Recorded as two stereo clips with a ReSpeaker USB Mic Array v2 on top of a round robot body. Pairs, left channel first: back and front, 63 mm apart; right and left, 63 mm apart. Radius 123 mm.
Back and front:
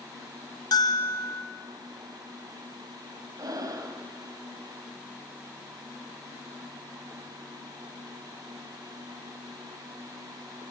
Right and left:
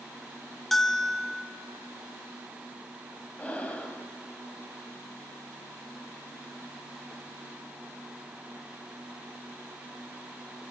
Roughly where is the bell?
Behind.